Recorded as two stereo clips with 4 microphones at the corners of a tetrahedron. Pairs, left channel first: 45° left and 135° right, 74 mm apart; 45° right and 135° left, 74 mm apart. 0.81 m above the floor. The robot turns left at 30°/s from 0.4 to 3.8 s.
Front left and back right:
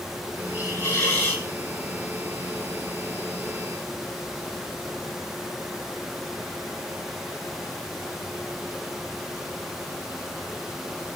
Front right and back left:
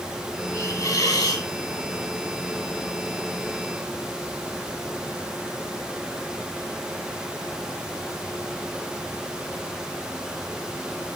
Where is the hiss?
Straight ahead, 6 m; by 1.5 s 30° right, 6 m.